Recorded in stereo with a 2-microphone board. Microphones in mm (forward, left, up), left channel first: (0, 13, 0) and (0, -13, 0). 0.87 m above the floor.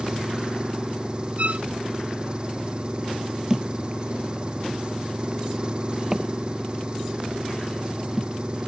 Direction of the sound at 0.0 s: 35° right (ahead or behind).